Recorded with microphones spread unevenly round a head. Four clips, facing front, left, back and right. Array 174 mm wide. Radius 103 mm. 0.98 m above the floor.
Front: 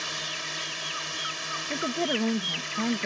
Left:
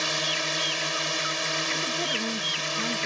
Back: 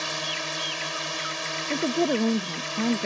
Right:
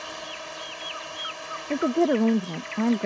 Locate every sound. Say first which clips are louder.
0.0 s a drone: left 6 dB, back 5 dB; 110° left
1.7 s a woman speaking: right 9 dB, back 5 dB; 115° right